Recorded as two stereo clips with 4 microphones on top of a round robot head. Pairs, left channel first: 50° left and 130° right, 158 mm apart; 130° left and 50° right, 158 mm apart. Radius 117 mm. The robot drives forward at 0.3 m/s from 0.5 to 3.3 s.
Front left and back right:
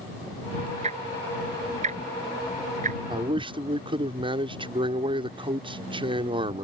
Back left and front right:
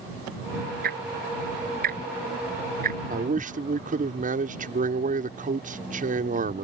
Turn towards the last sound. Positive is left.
turn(degrees=-75)